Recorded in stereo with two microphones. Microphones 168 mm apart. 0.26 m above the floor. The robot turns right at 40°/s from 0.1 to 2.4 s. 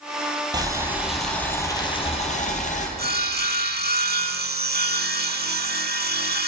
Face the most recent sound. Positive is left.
turn(degrees=-70)  # may be behind; listen again after turning